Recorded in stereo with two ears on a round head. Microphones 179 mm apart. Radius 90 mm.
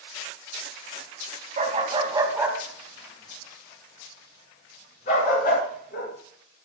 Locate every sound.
1.6 s a dog barking: 35° right (ahead or behind), 2.5 m; by 6.1 s 50° left (ahead or behind), 5.5 m